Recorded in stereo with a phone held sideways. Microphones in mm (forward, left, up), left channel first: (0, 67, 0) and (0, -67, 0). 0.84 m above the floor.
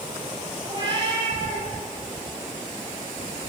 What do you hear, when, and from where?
0.6 s a cat meowing: 30° right (ahead or behind), 9 m